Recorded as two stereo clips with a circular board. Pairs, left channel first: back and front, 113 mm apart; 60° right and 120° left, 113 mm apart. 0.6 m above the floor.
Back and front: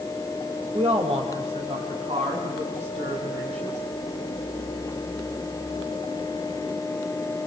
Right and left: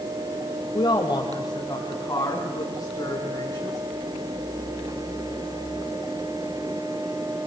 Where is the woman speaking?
20° right, 2 m; by 3.8 s straight ahead, 6 m.